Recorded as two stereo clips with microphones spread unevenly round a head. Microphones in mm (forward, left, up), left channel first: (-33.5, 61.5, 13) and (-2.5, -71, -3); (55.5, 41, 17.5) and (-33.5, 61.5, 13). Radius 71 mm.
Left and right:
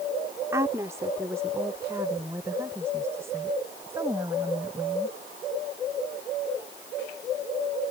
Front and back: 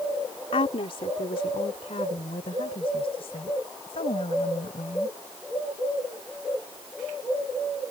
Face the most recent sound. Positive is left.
turn(degrees=-5)